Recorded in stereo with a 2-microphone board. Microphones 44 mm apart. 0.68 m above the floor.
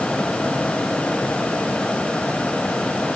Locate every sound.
Only background noise.